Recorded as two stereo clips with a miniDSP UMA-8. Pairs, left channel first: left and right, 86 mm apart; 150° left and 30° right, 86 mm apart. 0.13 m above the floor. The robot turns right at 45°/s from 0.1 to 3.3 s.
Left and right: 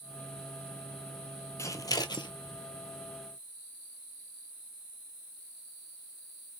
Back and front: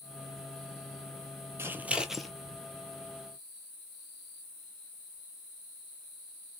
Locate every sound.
1.6 s scissors: 30° left, 0.7 m; by 2.3 s 65° left, 0.7 m